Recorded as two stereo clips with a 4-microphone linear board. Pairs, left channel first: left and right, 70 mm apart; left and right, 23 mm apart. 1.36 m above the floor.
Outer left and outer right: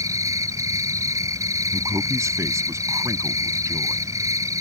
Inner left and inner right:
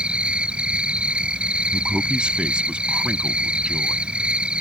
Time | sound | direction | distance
0.0 | an insect | 50° right (ahead or behind) | ?
1.7 | a man speaking | 45° right (ahead or behind) | ?